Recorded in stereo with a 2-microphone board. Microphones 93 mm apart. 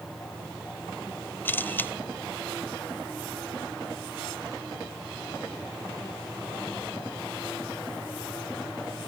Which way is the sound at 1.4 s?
20° left (ahead or behind).